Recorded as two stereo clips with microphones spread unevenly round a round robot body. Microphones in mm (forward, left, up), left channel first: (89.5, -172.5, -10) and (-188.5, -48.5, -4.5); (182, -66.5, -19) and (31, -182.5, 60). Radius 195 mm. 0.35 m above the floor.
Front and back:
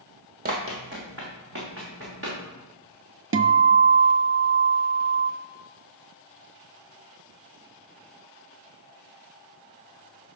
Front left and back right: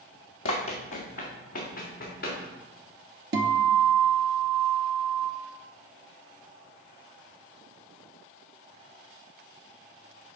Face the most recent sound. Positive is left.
turn(degrees=-150)